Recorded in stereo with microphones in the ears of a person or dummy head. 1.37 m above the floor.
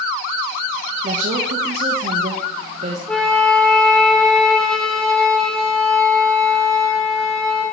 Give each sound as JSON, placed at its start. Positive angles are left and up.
{"t": 1.0, "sound": "a woman speaking", "side_deg": -40, "distance_m": 1.6}
{"t": 3.1, "sound": "a flute", "side_deg": 5, "distance_m": 2.0}